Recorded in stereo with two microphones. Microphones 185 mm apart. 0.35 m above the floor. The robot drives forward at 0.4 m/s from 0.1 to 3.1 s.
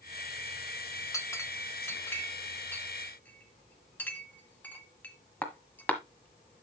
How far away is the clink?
About 0.8 m.